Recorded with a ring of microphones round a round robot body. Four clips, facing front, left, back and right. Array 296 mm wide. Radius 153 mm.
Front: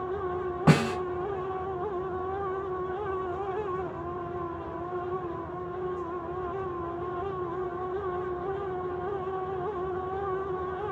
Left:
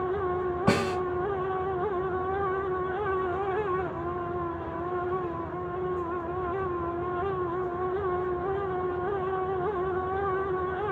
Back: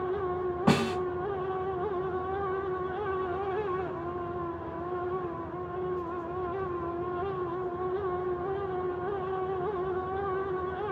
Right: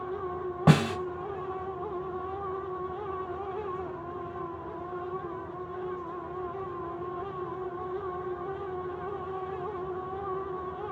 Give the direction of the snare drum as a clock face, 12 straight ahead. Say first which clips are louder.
Right 3 dB, front 3 dB; 2 o'clock.